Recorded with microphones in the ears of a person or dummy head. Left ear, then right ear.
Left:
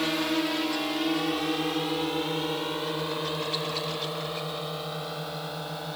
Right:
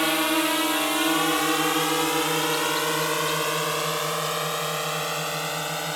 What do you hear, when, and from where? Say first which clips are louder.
0.0 s a drone: right 5 dB; 35° right (ahead or behind); by 6.0 s 65° right (ahead or behind)